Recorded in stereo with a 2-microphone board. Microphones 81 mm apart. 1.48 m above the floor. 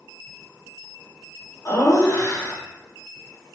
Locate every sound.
1.6 s laughter: 45° left (ahead or behind), 0.9 m